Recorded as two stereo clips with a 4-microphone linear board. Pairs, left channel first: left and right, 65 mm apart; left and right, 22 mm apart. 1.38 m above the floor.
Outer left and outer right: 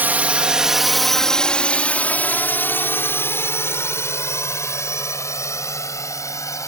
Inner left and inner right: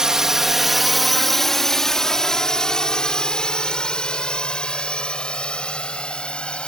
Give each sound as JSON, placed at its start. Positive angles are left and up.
{"t": 0.0, "sound": "a drone", "side_deg": -25}